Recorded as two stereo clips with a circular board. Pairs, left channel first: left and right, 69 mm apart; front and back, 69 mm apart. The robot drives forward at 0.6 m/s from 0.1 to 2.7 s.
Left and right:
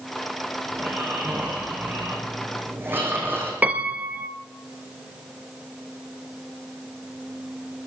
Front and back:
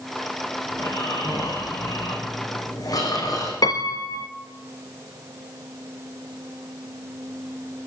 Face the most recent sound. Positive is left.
turn(degrees=-20)